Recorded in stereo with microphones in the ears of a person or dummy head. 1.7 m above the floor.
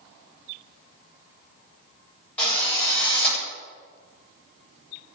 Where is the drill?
10° left (ahead or behind), 8.5 m.